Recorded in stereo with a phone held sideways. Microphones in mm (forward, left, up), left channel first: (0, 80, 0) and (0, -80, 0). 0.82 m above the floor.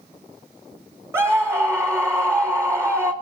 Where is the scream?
15° right (ahead or behind), 0.7 m.